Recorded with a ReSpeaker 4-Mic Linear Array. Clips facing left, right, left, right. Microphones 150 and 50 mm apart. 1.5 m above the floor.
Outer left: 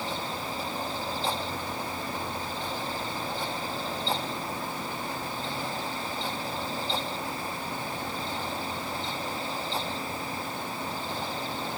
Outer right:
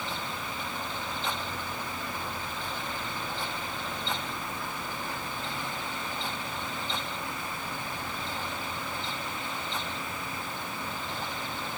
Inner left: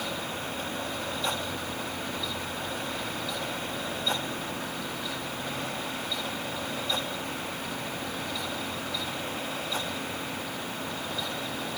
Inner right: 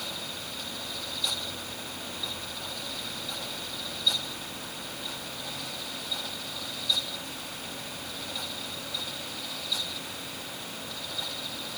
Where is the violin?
I don't hear a violin.